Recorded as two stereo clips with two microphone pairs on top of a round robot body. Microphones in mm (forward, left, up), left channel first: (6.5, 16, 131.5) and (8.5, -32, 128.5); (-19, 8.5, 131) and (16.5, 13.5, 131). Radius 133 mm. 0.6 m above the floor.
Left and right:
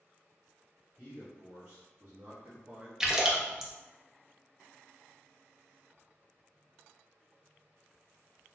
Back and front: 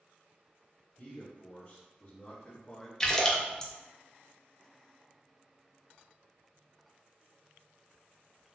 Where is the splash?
135° right, 0.9 m.